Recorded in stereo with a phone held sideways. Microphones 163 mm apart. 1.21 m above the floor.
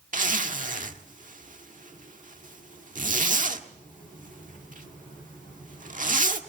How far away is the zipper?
About 1.4 m.